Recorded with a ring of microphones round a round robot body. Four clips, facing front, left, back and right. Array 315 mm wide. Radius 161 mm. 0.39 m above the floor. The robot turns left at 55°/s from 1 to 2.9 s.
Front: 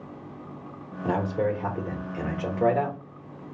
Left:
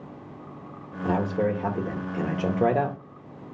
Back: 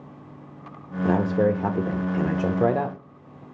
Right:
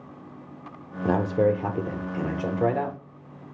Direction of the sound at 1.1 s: 125° right.